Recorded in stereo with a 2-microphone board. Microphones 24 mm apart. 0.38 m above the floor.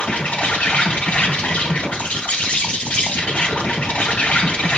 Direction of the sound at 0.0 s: 65° left (ahead or behind).